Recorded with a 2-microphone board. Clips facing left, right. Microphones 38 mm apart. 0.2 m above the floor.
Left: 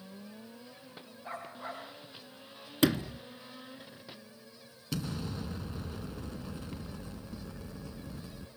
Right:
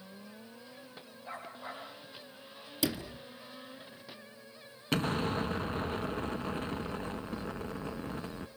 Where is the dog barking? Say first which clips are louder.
Left 2 dB; 55° left (ahead or behind), 10 m.